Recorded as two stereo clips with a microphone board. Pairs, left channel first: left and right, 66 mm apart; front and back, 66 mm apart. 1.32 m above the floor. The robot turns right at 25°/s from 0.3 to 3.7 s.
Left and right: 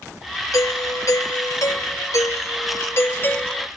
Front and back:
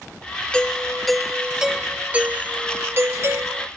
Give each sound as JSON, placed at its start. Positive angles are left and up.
{"t": 0.5, "sound": "a doorbell", "azimuth_deg": 75}